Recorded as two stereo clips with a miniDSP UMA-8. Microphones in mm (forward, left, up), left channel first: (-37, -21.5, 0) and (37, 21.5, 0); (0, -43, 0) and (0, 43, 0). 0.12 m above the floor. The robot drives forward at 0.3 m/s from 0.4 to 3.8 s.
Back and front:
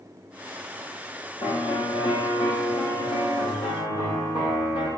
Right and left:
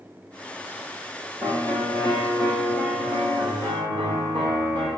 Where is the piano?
150° right, 5.5 m; by 4.9 s 155° right, 6.5 m.